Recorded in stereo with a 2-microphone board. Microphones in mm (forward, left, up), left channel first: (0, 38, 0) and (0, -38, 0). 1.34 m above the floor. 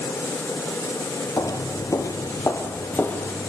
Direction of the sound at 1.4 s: 50° left (ahead or behind).